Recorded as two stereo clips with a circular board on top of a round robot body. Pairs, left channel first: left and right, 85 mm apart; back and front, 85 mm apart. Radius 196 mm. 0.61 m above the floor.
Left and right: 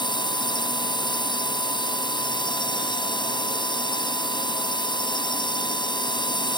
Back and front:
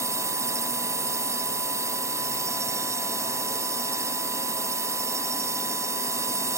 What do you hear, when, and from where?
0.0 s a drone: 55° left